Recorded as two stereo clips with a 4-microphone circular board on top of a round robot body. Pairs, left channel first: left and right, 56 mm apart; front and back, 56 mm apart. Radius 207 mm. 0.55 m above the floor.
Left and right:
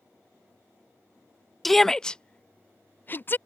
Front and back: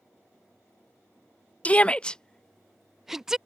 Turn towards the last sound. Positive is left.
turn(degrees=105)